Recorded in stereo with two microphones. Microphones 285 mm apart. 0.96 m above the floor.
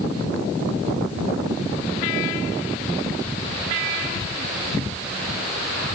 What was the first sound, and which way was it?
Only background noise.